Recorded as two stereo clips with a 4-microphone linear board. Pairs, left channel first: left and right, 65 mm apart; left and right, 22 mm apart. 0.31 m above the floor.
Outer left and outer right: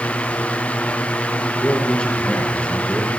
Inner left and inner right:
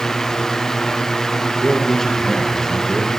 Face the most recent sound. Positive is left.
turn(degrees=10)  # may be behind; listen again after turning